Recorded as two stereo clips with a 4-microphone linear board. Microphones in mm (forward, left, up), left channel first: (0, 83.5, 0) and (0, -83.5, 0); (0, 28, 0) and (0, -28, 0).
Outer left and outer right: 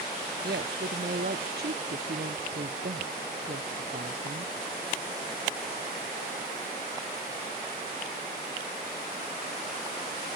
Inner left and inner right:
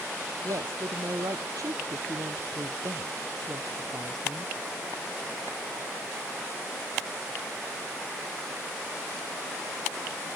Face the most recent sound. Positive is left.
turn(degrees=-80)